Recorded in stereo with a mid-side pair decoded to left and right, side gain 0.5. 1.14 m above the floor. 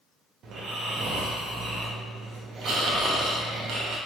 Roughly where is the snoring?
Ahead right.